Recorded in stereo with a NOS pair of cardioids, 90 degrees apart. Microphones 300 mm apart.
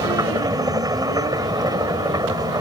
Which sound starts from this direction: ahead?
A machine running, at 0.0 s.